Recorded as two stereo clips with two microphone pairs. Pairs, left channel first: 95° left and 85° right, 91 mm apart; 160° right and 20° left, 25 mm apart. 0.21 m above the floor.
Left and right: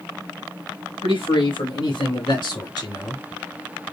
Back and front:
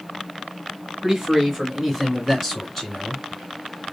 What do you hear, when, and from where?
1.0 s a man speaking: 100° left, 3 m; by 3.2 s 130° left, 2 m